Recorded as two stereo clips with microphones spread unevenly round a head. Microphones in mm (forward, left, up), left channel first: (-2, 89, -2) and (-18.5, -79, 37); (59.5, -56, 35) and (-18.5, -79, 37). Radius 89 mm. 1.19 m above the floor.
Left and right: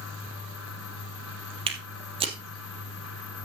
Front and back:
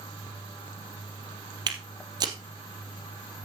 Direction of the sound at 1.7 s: 140° right.